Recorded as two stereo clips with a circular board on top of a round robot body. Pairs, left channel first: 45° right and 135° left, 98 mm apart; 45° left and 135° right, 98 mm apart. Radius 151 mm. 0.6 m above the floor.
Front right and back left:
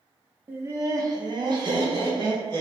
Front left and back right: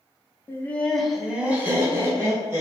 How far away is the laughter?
About 0.9 m.